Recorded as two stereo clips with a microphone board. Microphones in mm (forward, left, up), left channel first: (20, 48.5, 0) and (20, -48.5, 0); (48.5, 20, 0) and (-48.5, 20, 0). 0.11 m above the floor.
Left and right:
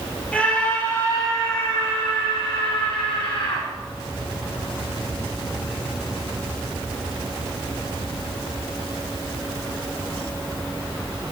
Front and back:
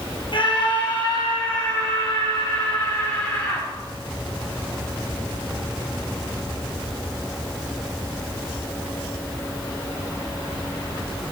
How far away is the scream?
About 3 m.